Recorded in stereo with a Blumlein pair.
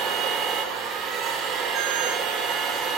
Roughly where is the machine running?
Ahead right.